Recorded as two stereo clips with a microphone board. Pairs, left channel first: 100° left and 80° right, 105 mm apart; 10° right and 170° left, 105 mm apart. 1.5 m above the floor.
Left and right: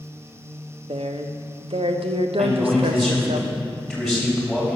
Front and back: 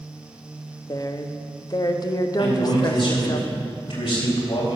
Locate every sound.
0.9 s a woman speaking: 60° right, 0.8 m
2.4 s a man speaking: 5° left, 3.5 m